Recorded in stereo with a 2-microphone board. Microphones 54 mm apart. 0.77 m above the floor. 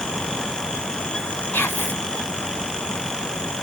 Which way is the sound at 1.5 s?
40° left (ahead or behind).